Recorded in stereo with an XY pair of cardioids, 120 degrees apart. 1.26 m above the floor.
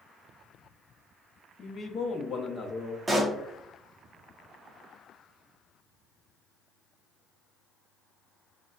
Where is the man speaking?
40° left, 0.8 m.